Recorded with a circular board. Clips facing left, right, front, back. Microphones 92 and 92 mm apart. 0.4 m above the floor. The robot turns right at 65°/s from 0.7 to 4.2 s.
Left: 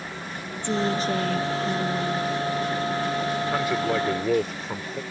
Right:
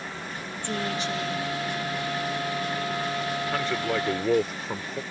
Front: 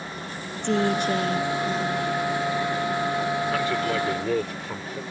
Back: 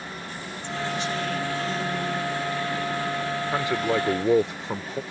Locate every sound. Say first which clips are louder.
0.6 s a woman speaking: left 6 dB, front 7 dB; 20° left; by 2.4 s 125° left
3.5 s a man speaking: left 2 dB, even; 140° left; by 5.0 s 175° right